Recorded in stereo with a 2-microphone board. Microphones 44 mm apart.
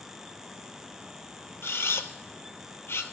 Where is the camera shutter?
65° left (ahead or behind), 0.9 m.